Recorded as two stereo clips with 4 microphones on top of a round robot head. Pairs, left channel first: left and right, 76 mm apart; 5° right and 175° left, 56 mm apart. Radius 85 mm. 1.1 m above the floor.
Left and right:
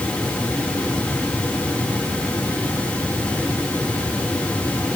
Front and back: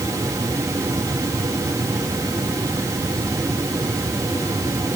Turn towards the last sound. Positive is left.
No sound to turn to.